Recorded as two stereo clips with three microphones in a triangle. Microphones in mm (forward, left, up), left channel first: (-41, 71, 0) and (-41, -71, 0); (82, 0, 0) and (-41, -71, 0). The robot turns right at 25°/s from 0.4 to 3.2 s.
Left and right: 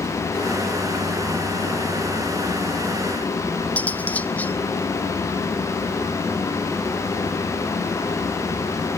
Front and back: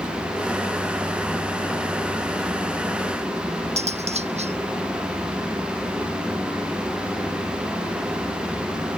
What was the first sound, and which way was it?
Cutlery clinking, 170° left.